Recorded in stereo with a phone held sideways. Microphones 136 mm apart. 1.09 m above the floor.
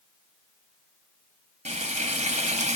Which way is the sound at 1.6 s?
55° right (ahead or behind).